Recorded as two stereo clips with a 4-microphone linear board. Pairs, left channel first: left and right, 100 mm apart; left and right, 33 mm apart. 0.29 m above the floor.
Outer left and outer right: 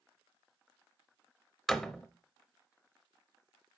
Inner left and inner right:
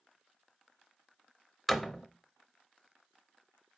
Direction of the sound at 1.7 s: 5° left (ahead or behind).